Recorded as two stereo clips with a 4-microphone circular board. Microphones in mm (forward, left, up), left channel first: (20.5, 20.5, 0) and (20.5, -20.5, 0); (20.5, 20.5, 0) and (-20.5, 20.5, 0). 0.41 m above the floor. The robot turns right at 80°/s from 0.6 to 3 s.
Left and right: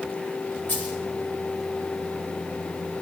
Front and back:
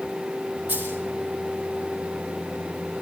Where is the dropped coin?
135° left, 7.5 m; by 1.0 s 155° left, 7.5 m.